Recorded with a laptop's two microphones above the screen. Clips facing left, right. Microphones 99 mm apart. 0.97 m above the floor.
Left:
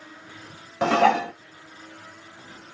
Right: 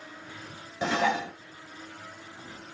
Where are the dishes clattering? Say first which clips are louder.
Left 8 dB; 75° left (ahead or behind), 0.8 m.